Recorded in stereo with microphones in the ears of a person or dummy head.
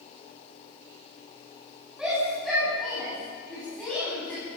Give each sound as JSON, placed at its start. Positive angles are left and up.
{"t": 2.0, "sound": "a shout", "side_deg": -5, "distance_m": 9.0}